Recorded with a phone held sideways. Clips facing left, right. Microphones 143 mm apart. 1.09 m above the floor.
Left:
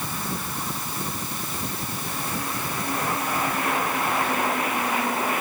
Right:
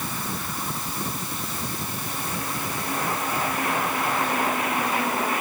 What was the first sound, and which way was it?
Only background noise.